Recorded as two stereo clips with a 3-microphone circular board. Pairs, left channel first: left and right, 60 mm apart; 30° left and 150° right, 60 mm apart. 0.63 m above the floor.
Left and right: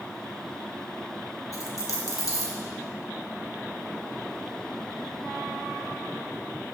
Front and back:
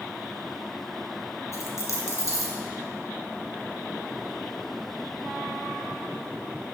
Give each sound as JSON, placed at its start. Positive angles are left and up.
{"t": 1.5, "sound": "a dropped coin", "azimuth_deg": 65, "distance_m": 2.5}